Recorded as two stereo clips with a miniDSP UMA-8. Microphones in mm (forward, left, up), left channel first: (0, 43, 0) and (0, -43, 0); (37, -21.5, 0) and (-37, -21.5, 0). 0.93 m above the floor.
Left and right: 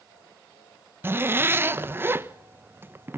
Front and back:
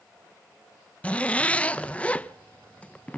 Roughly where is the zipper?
Ahead right.